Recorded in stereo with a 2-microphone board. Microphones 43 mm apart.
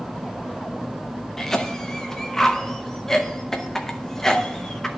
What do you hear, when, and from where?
1.4 s a cough: 10° left (ahead or behind), 0.6 m